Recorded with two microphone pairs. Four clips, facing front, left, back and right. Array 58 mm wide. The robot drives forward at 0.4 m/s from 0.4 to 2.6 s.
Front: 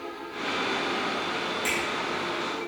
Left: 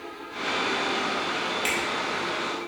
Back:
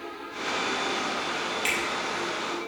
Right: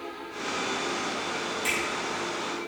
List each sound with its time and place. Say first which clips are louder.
1.6 s a finger snap: even, back 1 dB; 140° left, 2 m